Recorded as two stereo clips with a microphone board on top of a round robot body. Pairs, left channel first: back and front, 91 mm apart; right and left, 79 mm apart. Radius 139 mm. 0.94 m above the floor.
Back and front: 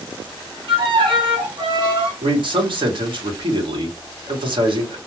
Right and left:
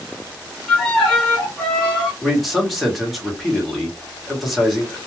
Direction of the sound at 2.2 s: Straight ahead.